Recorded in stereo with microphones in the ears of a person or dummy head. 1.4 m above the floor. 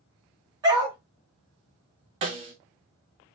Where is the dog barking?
25° right (ahead or behind), 2.5 m.